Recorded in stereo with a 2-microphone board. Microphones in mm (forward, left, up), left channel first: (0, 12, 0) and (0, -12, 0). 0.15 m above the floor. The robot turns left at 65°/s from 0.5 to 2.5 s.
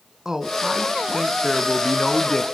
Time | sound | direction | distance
0.2 | a man speaking | 125° right | 1.5 m